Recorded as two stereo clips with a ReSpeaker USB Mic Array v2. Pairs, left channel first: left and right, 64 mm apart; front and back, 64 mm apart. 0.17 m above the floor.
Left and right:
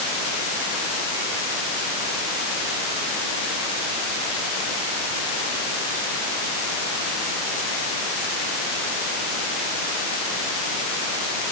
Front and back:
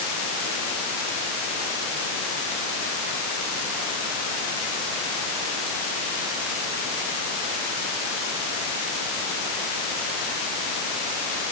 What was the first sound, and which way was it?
Only background noise.